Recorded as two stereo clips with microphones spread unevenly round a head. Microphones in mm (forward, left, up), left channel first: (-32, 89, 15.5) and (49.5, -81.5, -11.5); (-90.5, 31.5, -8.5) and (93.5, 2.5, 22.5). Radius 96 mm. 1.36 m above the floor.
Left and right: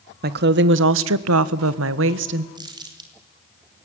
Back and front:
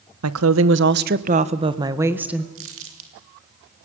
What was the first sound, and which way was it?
A woman speaking, 25° right.